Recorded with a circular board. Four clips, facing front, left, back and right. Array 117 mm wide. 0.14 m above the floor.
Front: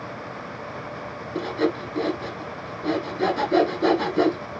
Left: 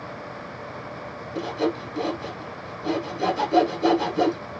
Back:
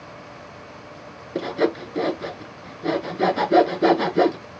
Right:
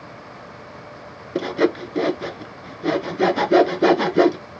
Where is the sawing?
105° right, 0.9 m.